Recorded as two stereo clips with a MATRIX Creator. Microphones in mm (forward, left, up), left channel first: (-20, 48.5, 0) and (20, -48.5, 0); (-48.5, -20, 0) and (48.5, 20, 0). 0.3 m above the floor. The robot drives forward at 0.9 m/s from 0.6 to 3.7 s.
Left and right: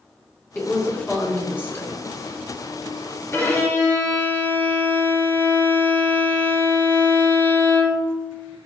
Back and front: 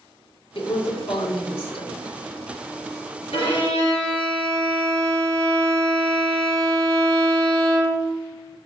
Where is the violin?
Straight behind, 2.5 m.